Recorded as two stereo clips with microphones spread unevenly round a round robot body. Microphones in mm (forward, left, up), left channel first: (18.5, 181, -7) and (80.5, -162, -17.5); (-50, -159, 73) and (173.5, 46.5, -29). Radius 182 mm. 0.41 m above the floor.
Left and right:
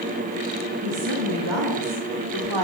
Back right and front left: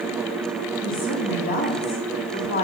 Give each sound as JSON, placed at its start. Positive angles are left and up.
{"t": 0.8, "sound": "a woman speaking", "azimuth_deg": -60, "distance_m": 4.0}